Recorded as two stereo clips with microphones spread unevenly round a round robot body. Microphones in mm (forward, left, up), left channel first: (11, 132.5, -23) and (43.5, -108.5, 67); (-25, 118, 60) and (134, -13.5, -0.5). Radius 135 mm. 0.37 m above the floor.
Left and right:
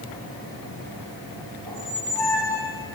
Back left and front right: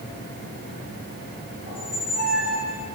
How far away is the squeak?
About 9 m.